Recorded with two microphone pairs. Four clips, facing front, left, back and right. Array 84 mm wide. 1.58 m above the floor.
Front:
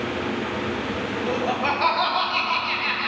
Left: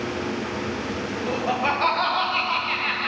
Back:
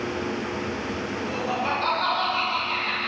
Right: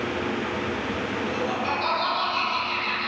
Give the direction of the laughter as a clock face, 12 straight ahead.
11 o'clock.